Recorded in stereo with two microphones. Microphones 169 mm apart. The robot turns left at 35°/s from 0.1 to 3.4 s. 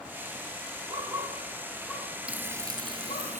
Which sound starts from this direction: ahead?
Frying, at 2.3 s.